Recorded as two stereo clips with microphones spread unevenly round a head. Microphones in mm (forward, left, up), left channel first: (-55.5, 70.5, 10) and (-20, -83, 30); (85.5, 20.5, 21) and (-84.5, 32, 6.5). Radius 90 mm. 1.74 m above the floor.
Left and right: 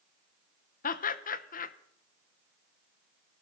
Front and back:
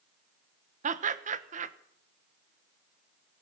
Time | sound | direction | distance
0.8 | laughter | 135° left | 1.1 m